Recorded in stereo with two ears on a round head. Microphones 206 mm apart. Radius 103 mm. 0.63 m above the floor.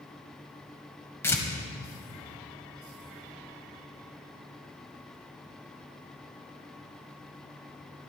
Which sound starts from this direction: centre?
Tearing paper, at 1.2 s.